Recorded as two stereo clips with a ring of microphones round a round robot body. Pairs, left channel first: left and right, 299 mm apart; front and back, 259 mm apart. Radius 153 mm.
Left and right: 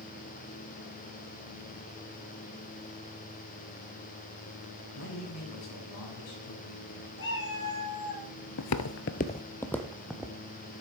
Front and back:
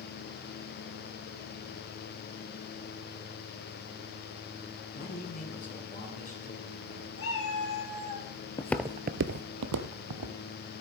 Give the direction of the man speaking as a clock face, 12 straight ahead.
10 o'clock.